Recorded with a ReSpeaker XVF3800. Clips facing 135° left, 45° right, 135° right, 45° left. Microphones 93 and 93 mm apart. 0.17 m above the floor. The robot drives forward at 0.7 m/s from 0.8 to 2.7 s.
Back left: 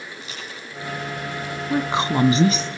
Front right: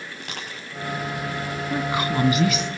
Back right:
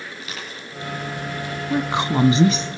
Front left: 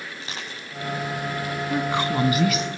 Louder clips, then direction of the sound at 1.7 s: Back left 3 dB, back right 3 dB; 170° left.